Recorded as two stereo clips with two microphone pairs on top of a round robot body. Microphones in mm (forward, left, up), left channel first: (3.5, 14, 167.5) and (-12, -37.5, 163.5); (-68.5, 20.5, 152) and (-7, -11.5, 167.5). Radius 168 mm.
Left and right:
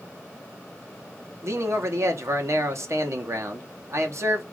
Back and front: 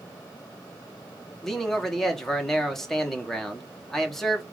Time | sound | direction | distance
1.4 | a man speaking | 130° right | 1.5 m